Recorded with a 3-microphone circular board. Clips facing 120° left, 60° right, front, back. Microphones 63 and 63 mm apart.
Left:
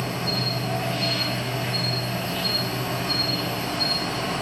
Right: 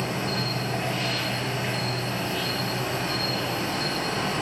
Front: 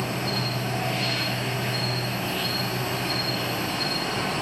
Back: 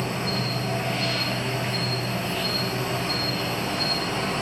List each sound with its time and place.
0.0 s an insect: 135° right, 1.1 m